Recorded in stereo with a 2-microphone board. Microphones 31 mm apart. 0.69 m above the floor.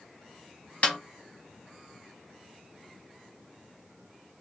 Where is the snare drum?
50° left (ahead or behind), 0.8 m.